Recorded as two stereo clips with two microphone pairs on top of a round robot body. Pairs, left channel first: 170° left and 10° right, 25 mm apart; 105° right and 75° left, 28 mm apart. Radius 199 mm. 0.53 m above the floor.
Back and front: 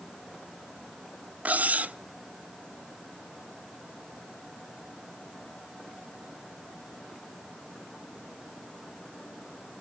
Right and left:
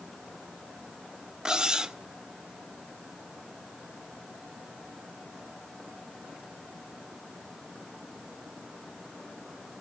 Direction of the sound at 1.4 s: 5° left.